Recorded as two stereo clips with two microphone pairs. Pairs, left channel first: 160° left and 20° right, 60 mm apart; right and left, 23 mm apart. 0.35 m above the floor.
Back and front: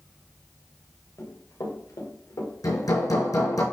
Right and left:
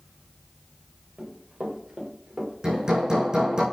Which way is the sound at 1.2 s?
135° left.